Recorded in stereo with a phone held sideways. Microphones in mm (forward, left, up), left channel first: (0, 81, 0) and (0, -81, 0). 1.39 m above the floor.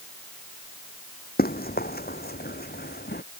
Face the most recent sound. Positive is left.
turn(degrees=75)  # may be behind; listen again after turning